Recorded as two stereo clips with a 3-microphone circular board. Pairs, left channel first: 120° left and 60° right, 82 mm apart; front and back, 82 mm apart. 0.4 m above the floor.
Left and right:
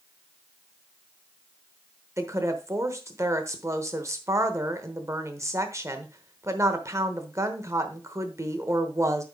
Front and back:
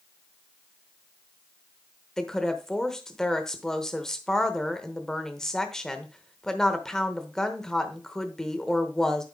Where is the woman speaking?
80° right, 0.9 m.